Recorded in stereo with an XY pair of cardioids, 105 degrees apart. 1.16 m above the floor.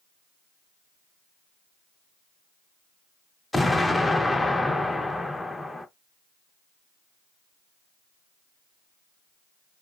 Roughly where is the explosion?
Ahead.